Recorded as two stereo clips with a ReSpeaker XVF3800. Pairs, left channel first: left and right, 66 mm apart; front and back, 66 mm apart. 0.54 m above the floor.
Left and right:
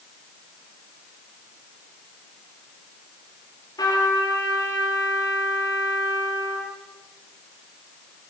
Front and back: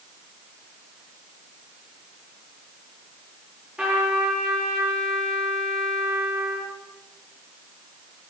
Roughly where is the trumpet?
Left.